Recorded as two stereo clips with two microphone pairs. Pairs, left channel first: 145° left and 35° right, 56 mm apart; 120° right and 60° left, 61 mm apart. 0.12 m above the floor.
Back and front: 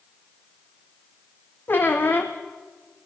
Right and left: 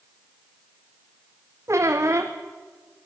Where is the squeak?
100° left, 1.7 m.